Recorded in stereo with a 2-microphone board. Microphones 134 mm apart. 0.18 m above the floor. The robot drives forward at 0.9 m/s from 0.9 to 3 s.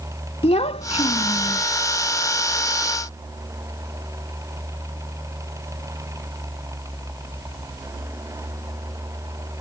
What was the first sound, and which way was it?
A child speaking, 50° left (ahead or behind).